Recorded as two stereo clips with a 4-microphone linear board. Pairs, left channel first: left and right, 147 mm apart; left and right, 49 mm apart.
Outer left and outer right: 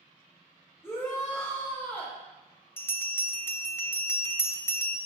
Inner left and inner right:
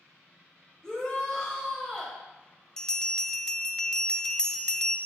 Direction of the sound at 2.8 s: 15° left (ahead or behind).